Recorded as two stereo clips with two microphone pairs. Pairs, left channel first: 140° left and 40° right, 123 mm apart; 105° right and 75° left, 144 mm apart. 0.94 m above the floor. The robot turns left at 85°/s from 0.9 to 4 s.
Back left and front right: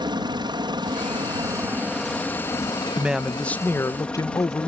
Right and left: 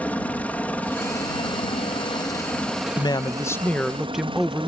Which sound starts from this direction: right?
A man speaking, at 3.0 s.